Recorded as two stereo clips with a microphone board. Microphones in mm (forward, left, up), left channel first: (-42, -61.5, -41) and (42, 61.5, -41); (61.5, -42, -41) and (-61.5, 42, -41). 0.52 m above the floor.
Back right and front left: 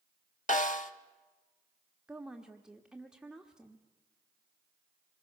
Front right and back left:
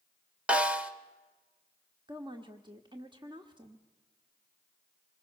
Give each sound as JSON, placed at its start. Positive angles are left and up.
{"t": 0.5, "sound": "a snare drum", "azimuth_deg": -135, "distance_m": 1.1}
{"t": 2.1, "sound": "a woman speaking", "azimuth_deg": 135, "distance_m": 1.1}